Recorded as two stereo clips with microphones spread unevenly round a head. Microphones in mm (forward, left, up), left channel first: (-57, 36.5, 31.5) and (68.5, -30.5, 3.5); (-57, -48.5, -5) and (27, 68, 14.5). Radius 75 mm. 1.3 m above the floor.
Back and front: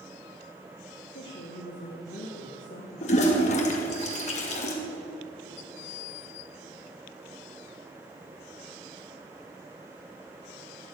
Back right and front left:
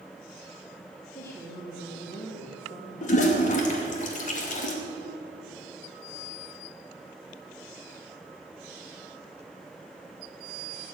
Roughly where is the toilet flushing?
Behind.